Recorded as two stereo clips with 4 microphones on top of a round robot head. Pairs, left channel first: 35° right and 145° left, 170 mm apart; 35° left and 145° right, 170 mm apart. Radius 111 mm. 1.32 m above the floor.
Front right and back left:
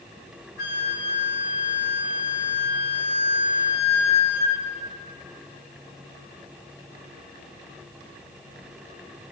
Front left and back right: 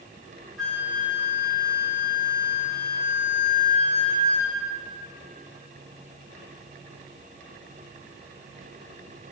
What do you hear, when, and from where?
0.6 s a flute: 55° right, 2.5 m